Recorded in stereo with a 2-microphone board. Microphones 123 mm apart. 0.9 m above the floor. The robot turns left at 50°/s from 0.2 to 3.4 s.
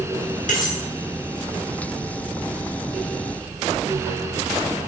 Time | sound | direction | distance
0.5 | cutlery clinking | 75° left (ahead or behind) | 1.0 m